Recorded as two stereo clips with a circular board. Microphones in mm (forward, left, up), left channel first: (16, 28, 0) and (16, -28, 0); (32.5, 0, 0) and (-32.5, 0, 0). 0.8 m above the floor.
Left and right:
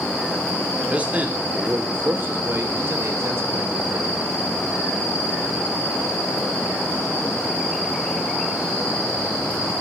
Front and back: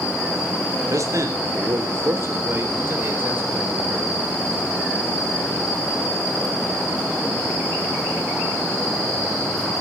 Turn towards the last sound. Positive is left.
turn(degrees=-120)